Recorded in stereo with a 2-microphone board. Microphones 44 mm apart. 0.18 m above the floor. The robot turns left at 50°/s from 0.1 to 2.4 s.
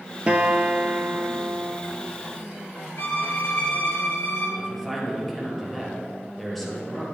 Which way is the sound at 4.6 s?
Centre (ahead or behind).